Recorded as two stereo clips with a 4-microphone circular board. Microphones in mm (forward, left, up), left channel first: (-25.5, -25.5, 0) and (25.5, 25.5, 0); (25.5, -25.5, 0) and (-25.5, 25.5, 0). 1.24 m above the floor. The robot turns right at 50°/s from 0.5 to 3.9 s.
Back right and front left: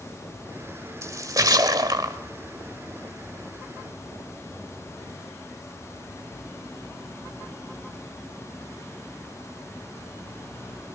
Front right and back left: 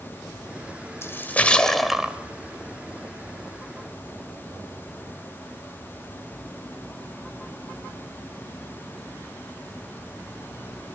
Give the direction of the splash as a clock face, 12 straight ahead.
12 o'clock.